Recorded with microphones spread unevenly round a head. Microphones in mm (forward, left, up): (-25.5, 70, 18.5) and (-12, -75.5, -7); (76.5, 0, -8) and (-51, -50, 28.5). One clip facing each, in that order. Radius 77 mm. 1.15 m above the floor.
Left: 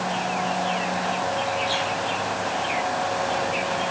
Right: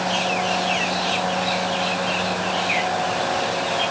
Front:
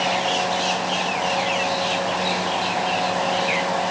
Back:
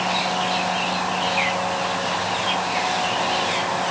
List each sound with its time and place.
Only background noise.